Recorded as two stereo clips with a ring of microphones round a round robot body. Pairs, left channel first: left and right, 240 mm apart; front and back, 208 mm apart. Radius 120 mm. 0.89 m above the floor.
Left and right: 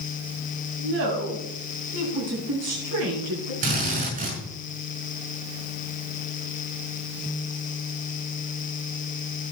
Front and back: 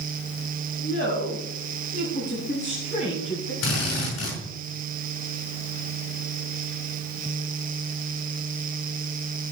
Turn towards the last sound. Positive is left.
turn(degrees=-30)